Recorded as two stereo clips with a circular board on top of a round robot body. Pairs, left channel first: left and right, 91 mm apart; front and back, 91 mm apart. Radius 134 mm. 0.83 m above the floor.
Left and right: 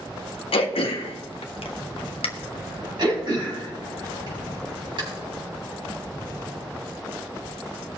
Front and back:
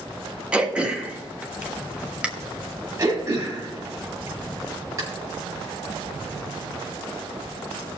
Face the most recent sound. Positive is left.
turn(degrees=-125)